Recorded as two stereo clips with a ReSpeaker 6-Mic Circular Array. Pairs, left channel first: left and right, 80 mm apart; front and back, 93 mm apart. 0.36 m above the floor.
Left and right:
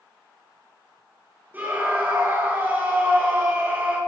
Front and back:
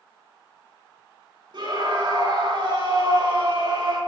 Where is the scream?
155° right, 6.5 m.